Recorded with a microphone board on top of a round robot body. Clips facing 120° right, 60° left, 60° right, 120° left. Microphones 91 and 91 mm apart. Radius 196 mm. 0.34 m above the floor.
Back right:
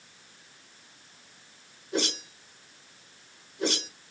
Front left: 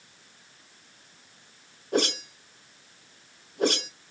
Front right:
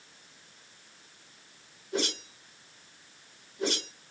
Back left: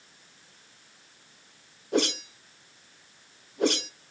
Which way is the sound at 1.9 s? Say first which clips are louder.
Front left 5 dB, back left 6 dB; 95° left.